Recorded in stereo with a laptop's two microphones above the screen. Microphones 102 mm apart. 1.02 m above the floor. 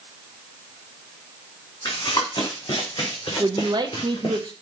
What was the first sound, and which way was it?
Running footsteps, 40° left (ahead or behind).